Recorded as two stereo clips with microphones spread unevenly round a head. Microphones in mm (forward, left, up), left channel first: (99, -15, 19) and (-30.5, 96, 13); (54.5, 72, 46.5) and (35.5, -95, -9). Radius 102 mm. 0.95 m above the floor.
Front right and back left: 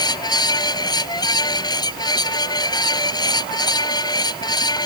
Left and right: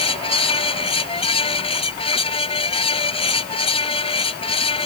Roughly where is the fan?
Ahead left.